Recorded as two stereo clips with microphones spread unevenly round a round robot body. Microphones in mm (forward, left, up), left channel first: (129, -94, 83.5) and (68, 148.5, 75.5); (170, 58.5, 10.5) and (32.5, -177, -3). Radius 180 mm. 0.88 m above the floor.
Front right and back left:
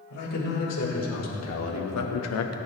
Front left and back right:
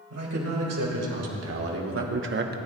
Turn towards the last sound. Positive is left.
turn(degrees=-70)